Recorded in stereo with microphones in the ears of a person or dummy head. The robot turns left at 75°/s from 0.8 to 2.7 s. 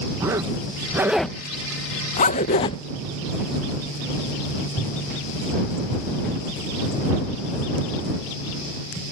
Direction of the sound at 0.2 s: 15° right (ahead or behind).